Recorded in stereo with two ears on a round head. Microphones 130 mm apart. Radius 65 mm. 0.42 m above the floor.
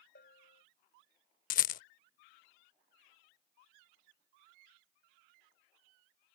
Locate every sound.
0.1 s a bell: 65° left (ahead or behind)
1.5 s a rattle: 60° left (ahead or behind)